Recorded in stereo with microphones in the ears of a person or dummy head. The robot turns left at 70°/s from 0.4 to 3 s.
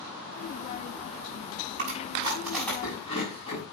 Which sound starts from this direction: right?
Chewing, at 1.8 s.